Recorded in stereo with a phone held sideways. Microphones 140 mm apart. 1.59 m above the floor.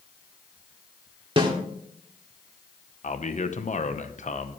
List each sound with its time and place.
1.4 s a snare drum: 35° right (ahead or behind), 1.7 m
3.0 s a man speaking: 60° left (ahead or behind), 0.9 m